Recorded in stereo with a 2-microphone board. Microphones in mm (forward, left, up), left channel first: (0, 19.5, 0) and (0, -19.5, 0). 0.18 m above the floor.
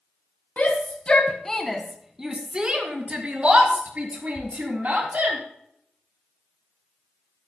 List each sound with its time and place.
0.6 s a shout: 45° left (ahead or behind), 1.5 m; by 5.4 s 45° right (ahead or behind), 4.5 m